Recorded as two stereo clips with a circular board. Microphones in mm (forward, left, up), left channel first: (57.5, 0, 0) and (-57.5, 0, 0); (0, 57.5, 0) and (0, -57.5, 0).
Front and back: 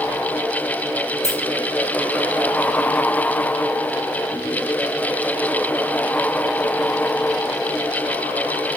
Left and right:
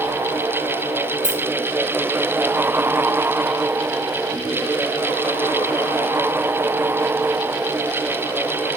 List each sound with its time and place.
1.2 s keys jangling: 55° left, 1.0 m